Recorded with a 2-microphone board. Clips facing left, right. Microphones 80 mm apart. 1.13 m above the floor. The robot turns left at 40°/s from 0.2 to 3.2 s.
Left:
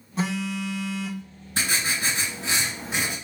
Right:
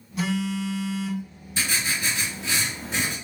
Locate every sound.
0.2 s a phone buzzing: 140° left, 0.8 m; by 1.2 s 100° left, 0.8 m
1.6 s writing: 75° left, 1.9 m; by 3.1 s 10° left, 1.9 m